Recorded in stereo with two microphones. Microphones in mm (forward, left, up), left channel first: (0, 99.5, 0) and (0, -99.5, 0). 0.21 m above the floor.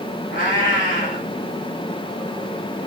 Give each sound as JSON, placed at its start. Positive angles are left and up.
{"t": 0.3, "sound": "a cat meowing", "side_deg": 85, "distance_m": 4.0}